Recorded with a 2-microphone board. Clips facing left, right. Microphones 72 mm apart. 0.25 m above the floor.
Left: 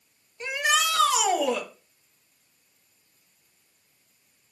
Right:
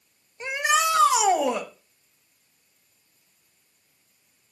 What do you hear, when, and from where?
0.4 s a shout: 20° right (ahead or behind), 1.0 m